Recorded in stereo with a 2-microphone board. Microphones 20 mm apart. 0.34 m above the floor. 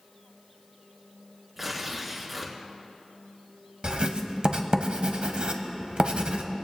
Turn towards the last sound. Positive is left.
turn(degrees=-55)  # may be behind; listen again after turning